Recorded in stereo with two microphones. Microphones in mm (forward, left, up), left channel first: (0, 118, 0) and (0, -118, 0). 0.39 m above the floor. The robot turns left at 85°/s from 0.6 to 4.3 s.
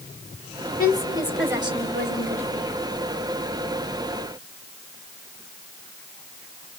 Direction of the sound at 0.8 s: 50° left.